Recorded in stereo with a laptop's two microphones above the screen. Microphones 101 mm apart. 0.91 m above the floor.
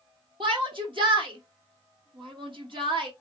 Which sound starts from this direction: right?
A shout, at 0.4 s.